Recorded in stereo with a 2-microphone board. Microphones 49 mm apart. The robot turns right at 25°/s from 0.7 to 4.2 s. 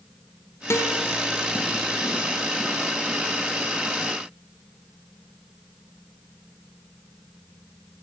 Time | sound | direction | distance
0.7 | a guitar | 65° left (ahead or behind) | 4.5 m